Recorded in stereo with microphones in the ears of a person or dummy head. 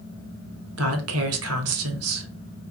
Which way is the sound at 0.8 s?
80° right.